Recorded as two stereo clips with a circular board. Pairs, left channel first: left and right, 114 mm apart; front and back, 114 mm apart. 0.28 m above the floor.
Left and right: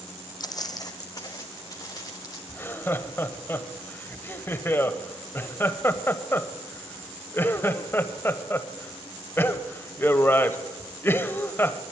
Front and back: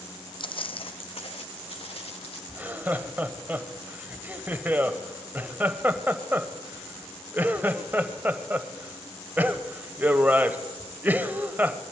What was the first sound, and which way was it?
Footsteps, 40° left.